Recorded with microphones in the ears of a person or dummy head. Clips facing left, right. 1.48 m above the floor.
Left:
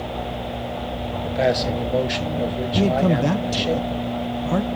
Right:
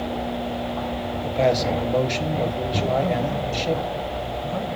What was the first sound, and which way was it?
A man speaking, 10° left (ahead or behind).